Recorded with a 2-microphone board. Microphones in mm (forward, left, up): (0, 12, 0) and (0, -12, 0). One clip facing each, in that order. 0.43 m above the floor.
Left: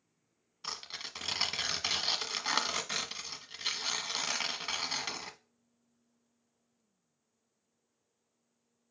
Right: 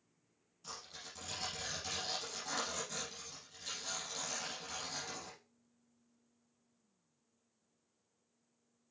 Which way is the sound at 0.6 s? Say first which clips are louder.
Left 8 dB; 65° left (ahead or behind).